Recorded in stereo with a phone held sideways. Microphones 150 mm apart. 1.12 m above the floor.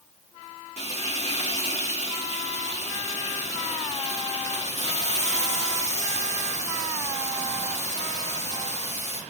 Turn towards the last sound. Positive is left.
turn(degrees=50)  # may be behind; listen again after turning